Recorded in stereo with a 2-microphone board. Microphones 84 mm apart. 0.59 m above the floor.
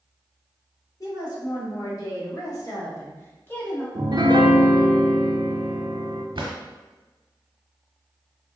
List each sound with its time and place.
1.0 s a woman speaking: 45° left (ahead or behind), 1.7 m; by 3.9 s 15° left (ahead or behind), 0.9 m
4.0 s a piano: 60° right (ahead or behind), 0.5 m
6.3 s a drawer: 85° right, 1.0 m